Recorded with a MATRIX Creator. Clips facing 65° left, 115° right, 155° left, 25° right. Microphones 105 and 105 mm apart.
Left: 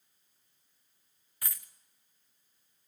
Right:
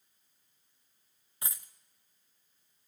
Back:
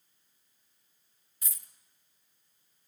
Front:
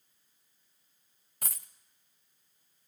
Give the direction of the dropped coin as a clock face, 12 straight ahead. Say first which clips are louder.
Right 1 dB, front 9 dB; 2 o'clock.